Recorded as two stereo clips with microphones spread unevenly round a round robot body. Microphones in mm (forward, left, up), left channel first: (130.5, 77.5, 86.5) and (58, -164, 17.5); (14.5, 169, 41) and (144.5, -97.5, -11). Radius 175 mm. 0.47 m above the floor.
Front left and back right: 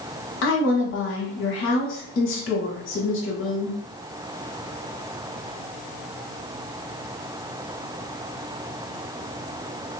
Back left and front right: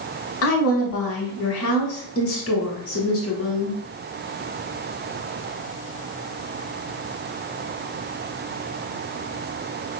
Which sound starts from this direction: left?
A woman speaking, at 0.4 s.